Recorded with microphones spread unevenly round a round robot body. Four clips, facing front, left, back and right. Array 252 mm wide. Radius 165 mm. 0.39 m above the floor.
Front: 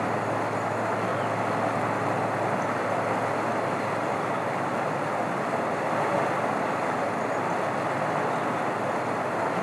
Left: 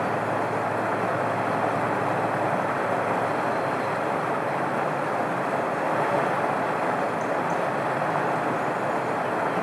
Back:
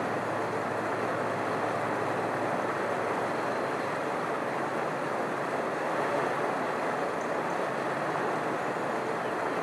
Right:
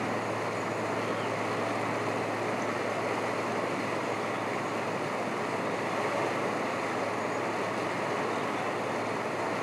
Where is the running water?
50° left, 0.9 m.